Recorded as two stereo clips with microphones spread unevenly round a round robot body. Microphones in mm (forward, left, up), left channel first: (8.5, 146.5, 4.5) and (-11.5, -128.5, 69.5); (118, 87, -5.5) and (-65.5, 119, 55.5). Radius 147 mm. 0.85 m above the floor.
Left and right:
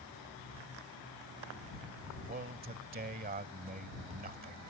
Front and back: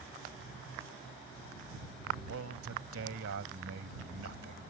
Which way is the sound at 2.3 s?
155° right.